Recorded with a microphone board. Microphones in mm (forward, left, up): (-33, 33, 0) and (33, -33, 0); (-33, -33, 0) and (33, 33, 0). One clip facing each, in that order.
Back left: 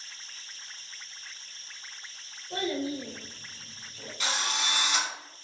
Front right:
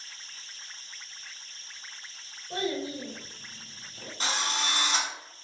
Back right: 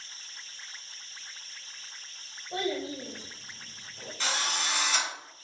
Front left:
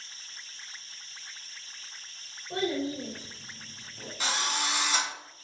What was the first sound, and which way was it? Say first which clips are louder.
A child speaking: back left 1 dB, front left 2 dB; 15° left.